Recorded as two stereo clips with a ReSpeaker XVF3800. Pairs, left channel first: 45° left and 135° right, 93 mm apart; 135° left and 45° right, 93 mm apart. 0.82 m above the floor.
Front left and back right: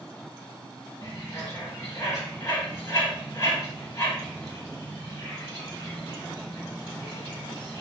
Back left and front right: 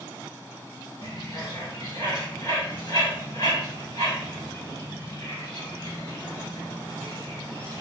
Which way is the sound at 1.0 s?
100° left.